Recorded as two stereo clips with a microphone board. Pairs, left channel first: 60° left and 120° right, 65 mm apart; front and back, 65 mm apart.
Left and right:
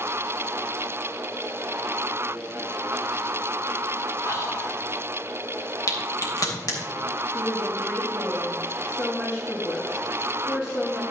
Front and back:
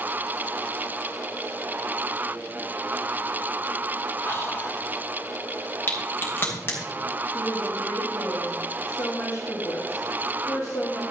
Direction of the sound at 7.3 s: 15° left.